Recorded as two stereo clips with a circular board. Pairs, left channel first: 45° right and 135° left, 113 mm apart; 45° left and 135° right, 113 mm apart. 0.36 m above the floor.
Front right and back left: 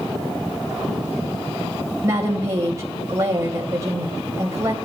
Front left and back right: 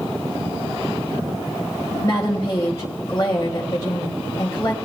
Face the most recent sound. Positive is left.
turn(degrees=85)